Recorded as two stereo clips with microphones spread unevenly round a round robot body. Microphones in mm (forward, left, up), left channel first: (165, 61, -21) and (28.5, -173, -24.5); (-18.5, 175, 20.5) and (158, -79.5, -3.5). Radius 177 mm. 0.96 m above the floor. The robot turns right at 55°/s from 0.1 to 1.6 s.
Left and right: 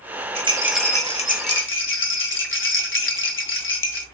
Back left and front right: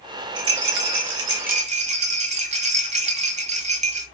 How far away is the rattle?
About 1.4 m.